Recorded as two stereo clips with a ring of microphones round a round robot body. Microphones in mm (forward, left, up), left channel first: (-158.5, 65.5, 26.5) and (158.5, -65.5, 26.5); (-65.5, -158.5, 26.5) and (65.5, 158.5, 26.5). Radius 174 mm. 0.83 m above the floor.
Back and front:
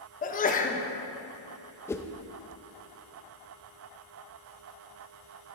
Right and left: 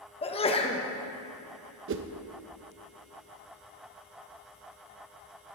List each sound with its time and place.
0.2 s a sneeze: 165° right, 0.9 m
1.9 s a whoosh: 80° left, 0.5 m